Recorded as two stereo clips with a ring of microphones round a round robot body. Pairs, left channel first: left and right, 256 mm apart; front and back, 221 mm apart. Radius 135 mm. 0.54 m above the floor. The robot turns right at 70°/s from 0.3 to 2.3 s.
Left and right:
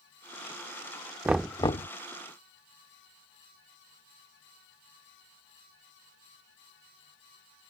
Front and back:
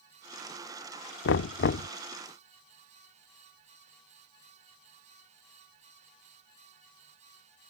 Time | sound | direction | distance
1.2 | knocking | 10° right | ?